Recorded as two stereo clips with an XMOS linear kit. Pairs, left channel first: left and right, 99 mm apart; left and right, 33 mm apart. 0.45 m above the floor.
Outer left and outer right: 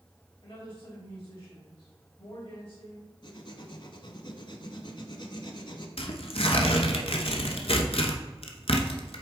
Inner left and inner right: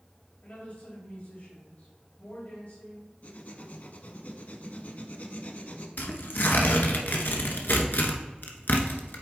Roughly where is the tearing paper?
Left.